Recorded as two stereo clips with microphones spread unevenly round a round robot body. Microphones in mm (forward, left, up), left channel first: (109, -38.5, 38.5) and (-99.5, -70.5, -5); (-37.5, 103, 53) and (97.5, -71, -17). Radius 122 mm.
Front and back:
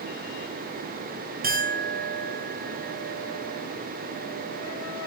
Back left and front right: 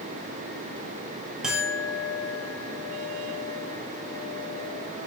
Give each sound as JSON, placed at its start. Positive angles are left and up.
{"t": 1.4, "sound": "a clink", "azimuth_deg": -135, "distance_m": 2.5}